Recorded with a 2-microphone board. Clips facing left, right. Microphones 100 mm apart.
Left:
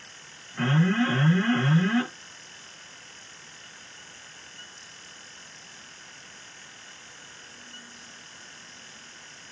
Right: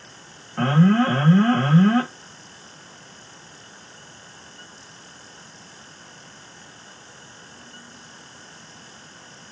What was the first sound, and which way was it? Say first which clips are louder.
An alarm: right 6 dB; 55° right (ahead or behind).